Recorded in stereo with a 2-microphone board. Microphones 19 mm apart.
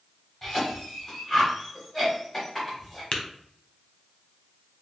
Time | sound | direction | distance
0.4 | a cough | 15° left (ahead or behind) | 1.2 m
3.1 | tapping | 40° left (ahead or behind) | 0.7 m